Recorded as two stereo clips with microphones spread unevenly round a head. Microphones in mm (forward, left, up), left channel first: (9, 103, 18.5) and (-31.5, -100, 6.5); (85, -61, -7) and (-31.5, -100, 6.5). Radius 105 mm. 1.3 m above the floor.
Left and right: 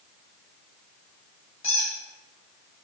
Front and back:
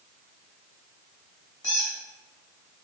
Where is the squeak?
60° left, 1.2 m.